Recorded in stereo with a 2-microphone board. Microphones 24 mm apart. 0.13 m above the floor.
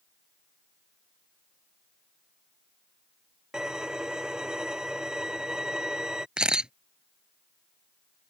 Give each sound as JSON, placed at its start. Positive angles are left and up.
{"t": 3.5, "sound": "a violin", "side_deg": -30}
{"t": 6.4, "sound": "a camera shutter", "side_deg": -40}